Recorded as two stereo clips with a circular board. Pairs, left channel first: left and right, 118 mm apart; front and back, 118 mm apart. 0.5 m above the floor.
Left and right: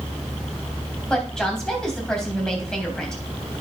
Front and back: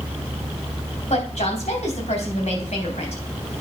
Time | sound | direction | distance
1.1 | a woman speaking | 5° left | 3 m